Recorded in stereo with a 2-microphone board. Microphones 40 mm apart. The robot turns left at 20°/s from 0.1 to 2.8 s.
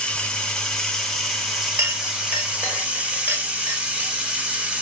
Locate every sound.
0.0 s running water: 25° left, 0.8 m; by 4.8 s 30° right, 0.8 m
1.8 s a clink: 75° right (ahead or behind), 0.8 m; by 4.1 s 70° right (ahead or behind), 0.8 m